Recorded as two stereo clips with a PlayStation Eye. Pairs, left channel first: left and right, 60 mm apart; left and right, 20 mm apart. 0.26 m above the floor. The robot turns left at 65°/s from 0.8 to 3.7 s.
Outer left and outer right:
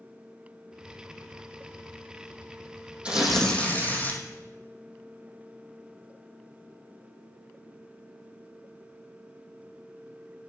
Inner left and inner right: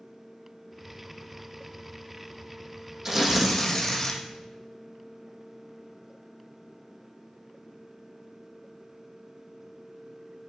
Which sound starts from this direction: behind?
Tearing paper, at 3.0 s.